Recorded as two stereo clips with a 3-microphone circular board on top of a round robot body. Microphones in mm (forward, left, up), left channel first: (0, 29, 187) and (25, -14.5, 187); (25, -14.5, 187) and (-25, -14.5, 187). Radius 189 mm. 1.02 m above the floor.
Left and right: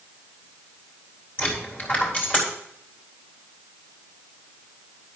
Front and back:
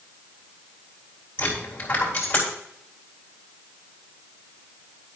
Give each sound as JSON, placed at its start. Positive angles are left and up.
{"t": 1.4, "sound": "a dropped coin", "azimuth_deg": 60, "distance_m": 4.0}